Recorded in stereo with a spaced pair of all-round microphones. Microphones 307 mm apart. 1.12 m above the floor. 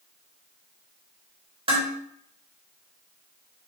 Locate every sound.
1.7 s dishes clattering: 20° right (ahead or behind), 1.2 m